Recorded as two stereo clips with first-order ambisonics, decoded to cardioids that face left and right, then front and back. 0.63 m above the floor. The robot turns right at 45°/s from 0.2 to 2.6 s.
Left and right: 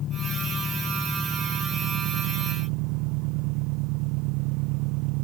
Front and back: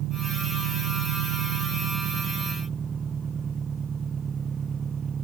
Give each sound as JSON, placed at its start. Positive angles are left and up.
{"t": 0.0, "sound": "an engine running", "azimuth_deg": 140}